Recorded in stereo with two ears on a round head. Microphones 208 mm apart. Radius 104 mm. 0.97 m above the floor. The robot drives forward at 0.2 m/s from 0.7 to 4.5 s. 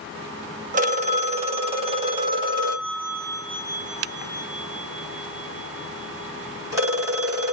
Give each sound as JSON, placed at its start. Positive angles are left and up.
{"t": 0.7, "sound": "a phone ringing", "side_deg": -35, "distance_m": 0.5}